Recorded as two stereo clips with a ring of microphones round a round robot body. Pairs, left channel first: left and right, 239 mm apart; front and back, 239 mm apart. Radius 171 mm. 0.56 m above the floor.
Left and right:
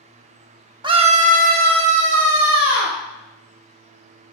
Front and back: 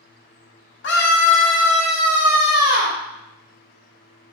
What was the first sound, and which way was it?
A scream, 25° right.